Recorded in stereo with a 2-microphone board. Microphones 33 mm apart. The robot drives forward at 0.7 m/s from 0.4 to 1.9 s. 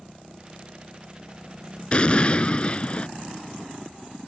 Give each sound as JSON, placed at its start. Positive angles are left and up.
{"t": 1.9, "sound": "an explosion", "side_deg": 35}